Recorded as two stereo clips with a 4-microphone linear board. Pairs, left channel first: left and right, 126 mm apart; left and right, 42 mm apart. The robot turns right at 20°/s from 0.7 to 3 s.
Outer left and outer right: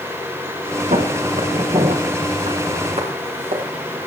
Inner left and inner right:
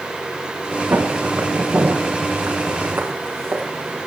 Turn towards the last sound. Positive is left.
turn(degrees=-70)  # may be behind; listen again after turning